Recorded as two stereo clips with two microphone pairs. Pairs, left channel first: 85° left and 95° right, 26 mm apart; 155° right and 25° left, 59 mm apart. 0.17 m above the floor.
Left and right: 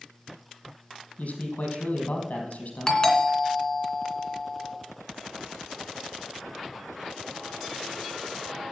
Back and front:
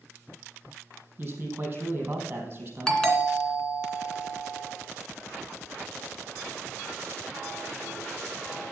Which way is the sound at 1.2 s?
80° left.